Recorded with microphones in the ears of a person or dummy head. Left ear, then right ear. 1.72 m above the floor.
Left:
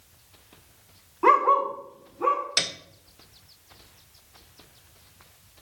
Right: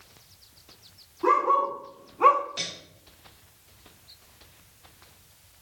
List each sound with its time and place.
1.2 s a dog barking: 30° left (ahead or behind), 1.3 m; by 2.4 s 30° right (ahead or behind), 1.3 m
2.6 s a piano: 55° left (ahead or behind), 0.7 m